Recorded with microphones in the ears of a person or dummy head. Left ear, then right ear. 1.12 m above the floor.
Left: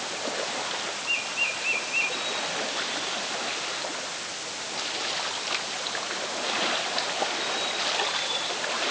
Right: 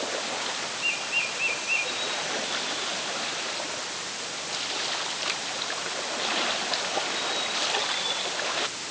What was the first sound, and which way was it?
Only background noise.